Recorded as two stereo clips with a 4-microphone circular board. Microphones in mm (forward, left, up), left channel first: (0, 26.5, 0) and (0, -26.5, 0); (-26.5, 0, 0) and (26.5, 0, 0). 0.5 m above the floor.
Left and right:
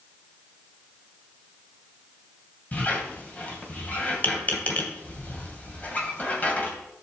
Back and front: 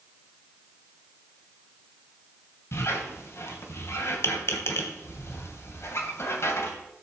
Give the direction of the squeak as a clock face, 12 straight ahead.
7 o'clock.